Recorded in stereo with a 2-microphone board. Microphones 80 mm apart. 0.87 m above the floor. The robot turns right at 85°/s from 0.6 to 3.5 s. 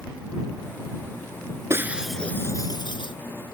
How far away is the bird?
No bird in this recording.